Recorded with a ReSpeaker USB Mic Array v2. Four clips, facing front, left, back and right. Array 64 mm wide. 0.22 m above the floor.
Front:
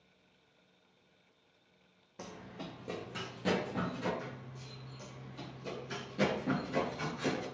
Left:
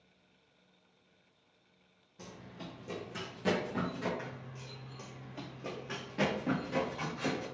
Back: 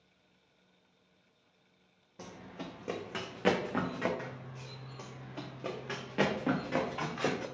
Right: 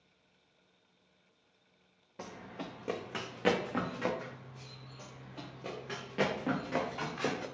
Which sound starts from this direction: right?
Running footsteps, at 2.2 s.